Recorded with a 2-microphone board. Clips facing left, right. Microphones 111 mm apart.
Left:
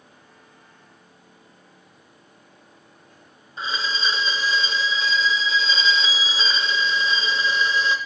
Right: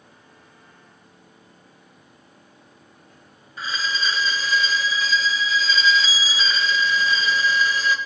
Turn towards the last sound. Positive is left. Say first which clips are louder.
# even
turn(degrees=25)  # may be behind; listen again after turning